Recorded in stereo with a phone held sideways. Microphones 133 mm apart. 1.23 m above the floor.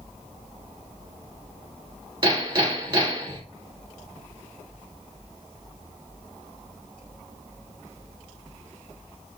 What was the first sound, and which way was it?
Hammering, 40° right (ahead or behind).